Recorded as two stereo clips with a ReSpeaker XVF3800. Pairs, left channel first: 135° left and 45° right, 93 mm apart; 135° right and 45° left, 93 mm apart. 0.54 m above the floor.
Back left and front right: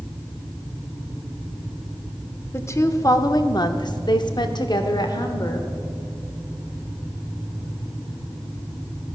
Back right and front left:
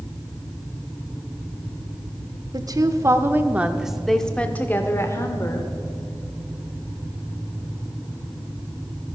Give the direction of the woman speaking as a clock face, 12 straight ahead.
9 o'clock.